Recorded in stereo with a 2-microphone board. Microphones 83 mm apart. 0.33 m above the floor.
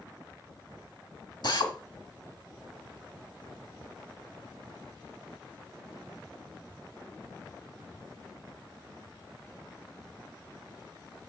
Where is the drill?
60° left (ahead or behind), 1.9 m.